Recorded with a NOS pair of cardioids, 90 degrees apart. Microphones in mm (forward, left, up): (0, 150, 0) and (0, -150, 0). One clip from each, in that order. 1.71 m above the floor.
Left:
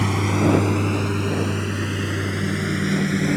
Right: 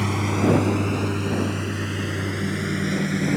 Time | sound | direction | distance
0.0 | a lawn mower | 15° left | ?